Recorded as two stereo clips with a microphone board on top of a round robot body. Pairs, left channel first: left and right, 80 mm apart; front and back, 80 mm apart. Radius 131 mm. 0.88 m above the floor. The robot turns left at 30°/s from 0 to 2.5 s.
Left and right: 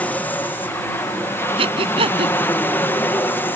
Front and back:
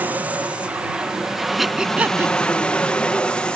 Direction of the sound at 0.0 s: 140° left.